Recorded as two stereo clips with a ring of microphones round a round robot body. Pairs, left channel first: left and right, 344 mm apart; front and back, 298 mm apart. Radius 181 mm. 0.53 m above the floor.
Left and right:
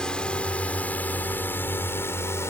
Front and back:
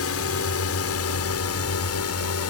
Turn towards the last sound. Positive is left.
turn(degrees=10)